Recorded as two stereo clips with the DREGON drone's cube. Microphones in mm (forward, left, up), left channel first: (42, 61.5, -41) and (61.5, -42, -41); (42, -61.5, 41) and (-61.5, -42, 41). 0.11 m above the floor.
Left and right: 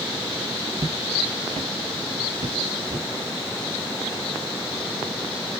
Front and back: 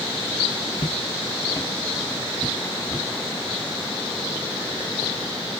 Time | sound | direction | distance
0.8 | footsteps | 35° right | 0.8 m